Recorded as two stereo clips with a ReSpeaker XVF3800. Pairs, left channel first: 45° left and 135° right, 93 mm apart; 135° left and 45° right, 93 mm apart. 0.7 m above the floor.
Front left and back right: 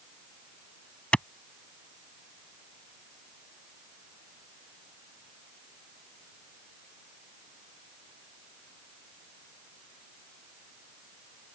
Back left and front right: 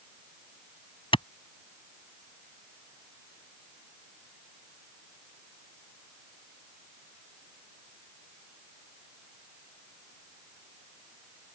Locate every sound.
1.1 s a clap: 125° left